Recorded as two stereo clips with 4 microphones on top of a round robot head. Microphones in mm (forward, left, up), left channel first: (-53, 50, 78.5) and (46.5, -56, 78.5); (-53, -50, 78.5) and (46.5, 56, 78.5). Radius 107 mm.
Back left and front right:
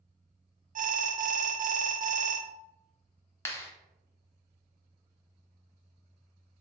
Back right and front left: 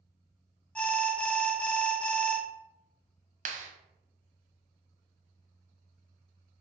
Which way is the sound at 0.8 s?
50° right.